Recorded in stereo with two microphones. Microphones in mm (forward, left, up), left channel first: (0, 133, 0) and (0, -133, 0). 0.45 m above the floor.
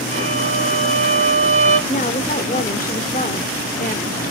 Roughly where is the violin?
Right.